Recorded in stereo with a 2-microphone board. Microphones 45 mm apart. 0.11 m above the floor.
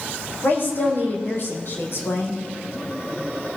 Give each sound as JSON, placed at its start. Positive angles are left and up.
{"t": 0.4, "sound": "a woman speaking", "side_deg": 50, "distance_m": 4.5}